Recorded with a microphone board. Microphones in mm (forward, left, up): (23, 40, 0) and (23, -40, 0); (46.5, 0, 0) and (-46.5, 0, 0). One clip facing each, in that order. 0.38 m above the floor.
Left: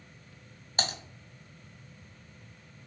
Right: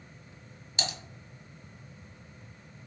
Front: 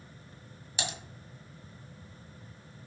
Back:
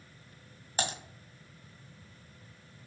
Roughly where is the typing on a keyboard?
Behind left.